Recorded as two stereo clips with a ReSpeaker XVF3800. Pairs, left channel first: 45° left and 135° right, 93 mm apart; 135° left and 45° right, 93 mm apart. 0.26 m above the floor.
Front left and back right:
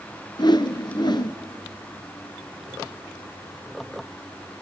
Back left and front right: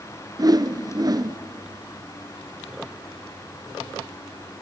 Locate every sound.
0.4 s a whoosh: 5° left, 0.8 m